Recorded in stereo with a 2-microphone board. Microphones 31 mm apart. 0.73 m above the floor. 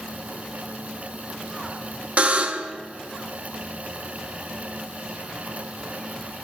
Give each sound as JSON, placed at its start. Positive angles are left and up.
{"t": 2.2, "sound": "a buzzer", "side_deg": -45, "distance_m": 0.8}